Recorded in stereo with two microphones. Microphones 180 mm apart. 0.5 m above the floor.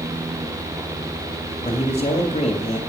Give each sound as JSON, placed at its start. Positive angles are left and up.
{"t": 1.6, "sound": "a man speaking", "side_deg": 35, "distance_m": 2.5}